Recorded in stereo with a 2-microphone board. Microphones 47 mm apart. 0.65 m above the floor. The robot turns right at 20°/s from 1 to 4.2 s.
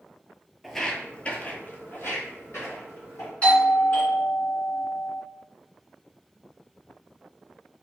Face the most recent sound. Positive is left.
turn(degrees=35)  # may be behind; listen again after turning